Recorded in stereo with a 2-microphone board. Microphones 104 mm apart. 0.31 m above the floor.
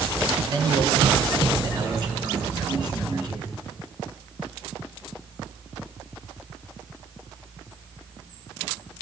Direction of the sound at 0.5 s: 45° right (ahead or behind).